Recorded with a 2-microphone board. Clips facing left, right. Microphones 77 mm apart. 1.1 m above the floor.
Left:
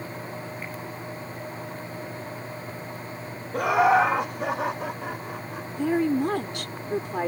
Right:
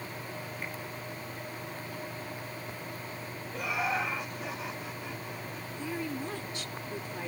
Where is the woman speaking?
70° left (ahead or behind).